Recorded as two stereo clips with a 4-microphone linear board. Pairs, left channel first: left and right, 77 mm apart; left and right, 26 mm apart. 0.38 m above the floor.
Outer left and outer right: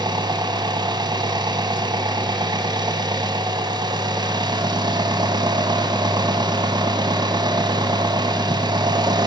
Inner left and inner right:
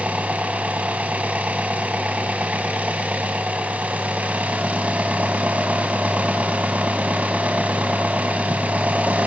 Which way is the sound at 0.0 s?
65° right (ahead or behind).